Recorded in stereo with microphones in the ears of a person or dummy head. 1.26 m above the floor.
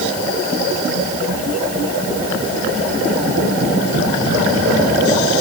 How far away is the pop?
I don't hear a pop.